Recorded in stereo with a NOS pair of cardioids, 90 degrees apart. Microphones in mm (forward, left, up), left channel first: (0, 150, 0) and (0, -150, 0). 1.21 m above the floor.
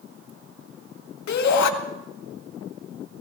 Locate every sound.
1.3 s a shout: 65° left, 1.8 m